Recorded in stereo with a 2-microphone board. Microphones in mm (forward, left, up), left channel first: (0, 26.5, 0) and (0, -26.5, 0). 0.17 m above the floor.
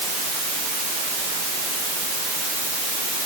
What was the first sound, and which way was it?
Only background noise.